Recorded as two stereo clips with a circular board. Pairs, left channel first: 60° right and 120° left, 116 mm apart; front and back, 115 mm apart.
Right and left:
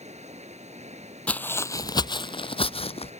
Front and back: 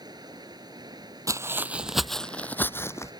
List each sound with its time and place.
0.0 s running water: 125° left
1.3 s footsteps: 135° right; by 3.1 s 60° right